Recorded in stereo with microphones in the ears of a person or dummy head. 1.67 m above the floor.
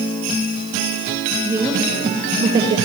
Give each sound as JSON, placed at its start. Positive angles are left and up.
{"t": 1.4, "sound": "a woman speaking", "side_deg": -5, "distance_m": 1.7}